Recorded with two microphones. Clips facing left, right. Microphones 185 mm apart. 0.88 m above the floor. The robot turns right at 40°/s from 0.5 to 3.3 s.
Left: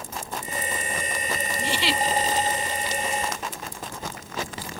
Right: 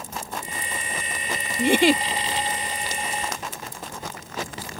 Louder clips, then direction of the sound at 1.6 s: Right 12 dB; 60° right (ahead or behind).